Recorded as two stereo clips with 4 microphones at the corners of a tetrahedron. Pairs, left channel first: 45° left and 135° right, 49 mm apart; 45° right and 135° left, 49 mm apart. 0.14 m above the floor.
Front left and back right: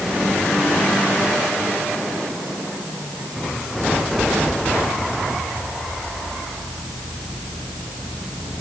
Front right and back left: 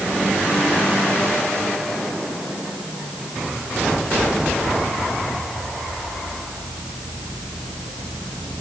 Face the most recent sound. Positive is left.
No sound to turn to.